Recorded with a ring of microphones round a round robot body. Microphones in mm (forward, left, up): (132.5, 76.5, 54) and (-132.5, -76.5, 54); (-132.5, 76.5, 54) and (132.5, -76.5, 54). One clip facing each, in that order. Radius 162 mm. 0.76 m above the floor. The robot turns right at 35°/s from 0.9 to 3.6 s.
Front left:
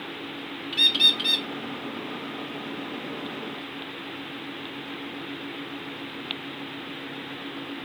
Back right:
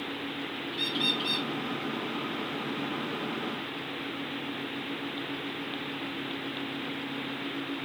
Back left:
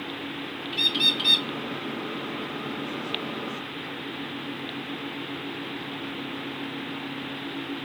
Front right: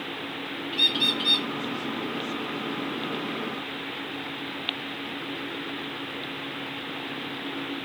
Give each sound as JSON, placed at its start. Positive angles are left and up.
{"t": 0.7, "sound": "a bird", "azimuth_deg": 75, "distance_m": 0.6}